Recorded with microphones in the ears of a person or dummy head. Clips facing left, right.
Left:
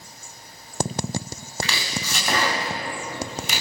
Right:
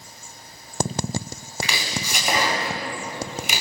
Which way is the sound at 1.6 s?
15° right (ahead or behind).